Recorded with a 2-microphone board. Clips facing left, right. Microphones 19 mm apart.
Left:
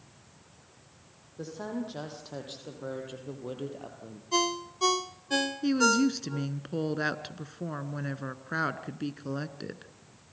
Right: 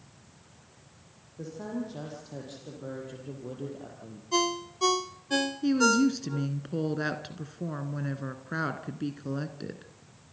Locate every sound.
1.4 s a woman speaking: 30° left (ahead or behind), 6 m
4.3 s a ringtone: centre (ahead or behind), 0.5 m
5.6 s a woman speaking: 10° left (ahead or behind), 1.1 m